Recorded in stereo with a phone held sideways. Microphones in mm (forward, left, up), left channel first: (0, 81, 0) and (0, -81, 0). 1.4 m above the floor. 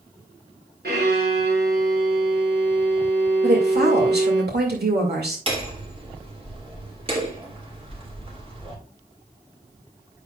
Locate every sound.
0.8 s a violin: 80° right, 5.5 m
3.4 s a woman speaking: 80° right, 2 m
5.5 s hammering: 35° right (ahead or behind), 2.5 m